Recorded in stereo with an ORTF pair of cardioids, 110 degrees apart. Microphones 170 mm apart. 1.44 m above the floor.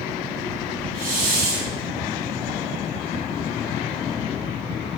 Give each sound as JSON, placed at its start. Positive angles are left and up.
{"t": 0.9, "sound": "a hiss", "azimuth_deg": -60, "distance_m": 1.6}